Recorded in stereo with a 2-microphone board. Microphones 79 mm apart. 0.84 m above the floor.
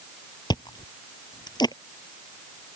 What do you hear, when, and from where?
0.5 s chewing: 70° left (ahead or behind)